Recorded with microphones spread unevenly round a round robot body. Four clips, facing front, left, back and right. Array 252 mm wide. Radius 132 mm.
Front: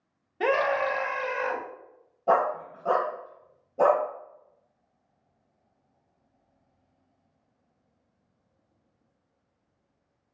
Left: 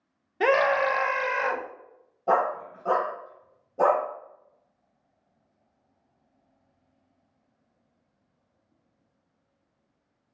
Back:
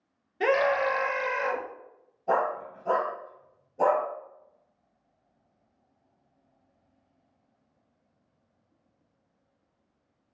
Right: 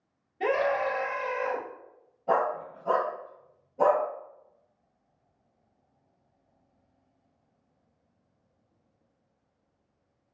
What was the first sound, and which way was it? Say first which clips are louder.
A scream: left 4 dB, back 1 dB; 80° left.